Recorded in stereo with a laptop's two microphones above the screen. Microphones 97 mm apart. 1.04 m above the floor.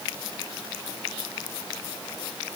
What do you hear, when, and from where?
Only background noise.